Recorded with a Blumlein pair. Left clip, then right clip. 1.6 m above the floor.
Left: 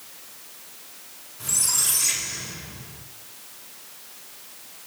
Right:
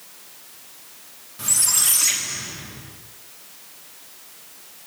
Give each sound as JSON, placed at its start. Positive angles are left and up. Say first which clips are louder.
{"t": 1.4, "sound": "a squeak", "louder": "right 3 dB", "azimuth_deg": -45, "distance_m": 2.5}